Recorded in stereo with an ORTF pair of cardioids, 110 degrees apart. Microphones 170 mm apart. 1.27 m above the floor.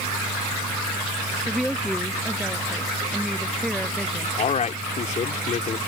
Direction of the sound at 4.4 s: 45° left.